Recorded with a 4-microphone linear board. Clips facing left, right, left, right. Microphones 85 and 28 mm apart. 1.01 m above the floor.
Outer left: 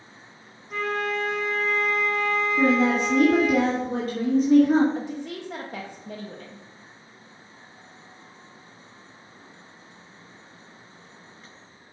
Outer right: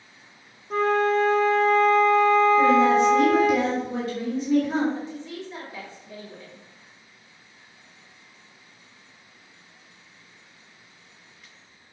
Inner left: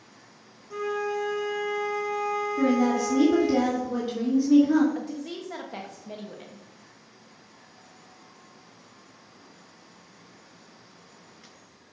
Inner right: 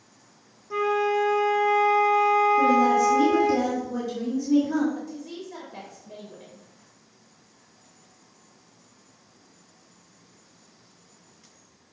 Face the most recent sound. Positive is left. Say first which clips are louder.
# outer left 2 dB, inner left 2 dB
turn(degrees=60)  # may be behind; listen again after turning